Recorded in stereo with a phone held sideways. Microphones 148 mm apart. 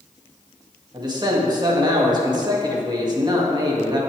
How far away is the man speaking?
About 2 m.